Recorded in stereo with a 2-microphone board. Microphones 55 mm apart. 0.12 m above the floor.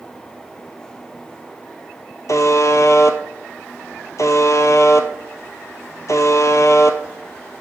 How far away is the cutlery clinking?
No cutlery clinking in this recording.